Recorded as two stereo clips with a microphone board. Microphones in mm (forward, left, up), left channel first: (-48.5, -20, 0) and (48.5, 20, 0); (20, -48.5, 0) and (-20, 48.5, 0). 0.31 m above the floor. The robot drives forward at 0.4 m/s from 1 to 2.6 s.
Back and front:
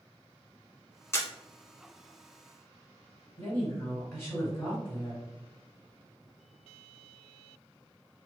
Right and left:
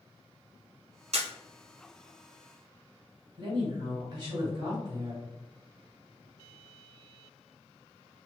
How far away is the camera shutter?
About 0.6 m.